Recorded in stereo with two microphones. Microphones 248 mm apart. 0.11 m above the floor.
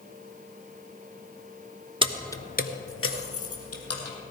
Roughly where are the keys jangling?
Right.